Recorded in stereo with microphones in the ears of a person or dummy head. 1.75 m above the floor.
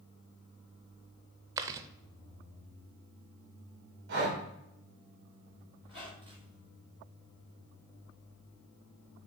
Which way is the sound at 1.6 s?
20° right (ahead or behind).